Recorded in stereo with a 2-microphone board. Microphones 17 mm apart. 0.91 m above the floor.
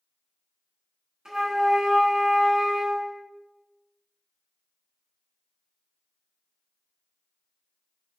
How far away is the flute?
About 1.3 m.